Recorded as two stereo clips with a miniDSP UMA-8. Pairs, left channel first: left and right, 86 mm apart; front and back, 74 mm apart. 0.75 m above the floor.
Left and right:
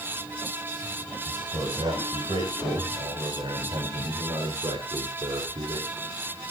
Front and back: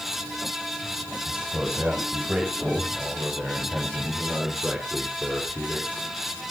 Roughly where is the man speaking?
Right.